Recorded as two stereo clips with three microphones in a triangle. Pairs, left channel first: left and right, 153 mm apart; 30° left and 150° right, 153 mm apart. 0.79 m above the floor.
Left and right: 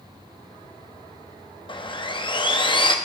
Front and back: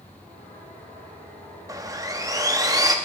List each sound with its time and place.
1.7 s sawing: 145° left, 0.8 m